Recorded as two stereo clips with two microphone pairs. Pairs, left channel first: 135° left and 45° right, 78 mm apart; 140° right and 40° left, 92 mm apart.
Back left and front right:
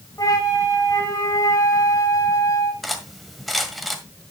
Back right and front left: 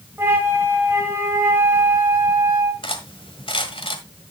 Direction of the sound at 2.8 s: 135° right.